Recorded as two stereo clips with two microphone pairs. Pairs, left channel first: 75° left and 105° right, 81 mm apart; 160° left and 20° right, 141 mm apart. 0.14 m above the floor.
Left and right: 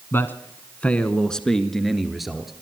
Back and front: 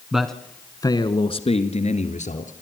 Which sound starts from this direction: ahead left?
A man speaking, at 0.1 s.